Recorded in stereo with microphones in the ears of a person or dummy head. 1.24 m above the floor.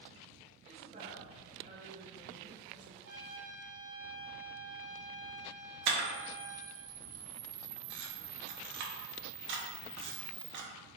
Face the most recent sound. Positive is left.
turn(degrees=-60)  # may be behind; listen again after turning